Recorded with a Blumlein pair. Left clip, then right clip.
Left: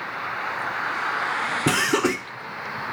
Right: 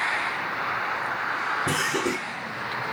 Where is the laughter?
40° left, 0.7 m.